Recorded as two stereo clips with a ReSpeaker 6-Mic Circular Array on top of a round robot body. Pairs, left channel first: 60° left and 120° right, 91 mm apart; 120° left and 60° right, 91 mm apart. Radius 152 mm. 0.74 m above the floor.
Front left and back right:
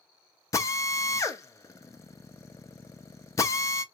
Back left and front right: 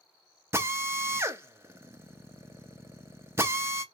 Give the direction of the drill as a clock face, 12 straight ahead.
12 o'clock.